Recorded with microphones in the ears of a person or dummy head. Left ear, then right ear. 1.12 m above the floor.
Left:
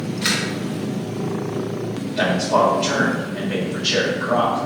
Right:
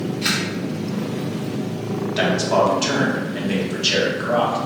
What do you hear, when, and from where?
0.2 s a camera shutter: 10° left (ahead or behind), 1.6 m
2.2 s a man speaking: 45° right (ahead or behind), 1.2 m